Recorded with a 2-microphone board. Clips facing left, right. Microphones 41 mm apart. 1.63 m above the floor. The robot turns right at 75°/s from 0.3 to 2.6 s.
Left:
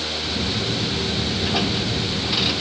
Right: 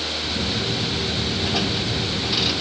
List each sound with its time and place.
Only background noise.